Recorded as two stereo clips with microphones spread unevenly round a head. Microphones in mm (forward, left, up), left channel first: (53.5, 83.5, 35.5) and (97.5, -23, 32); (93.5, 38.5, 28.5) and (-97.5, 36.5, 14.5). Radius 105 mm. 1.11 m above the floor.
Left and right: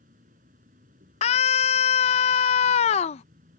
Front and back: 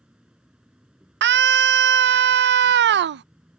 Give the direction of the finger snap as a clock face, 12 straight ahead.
I don't hear a finger snap.